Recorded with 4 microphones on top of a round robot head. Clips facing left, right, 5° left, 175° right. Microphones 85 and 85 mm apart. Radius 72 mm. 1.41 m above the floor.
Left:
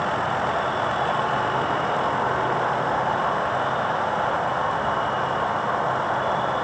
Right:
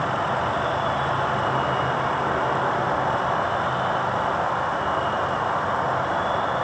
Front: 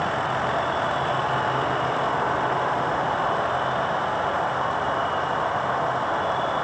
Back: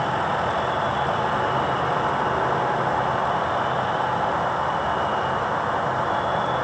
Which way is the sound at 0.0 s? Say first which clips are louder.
Even, back 1 dB; straight behind.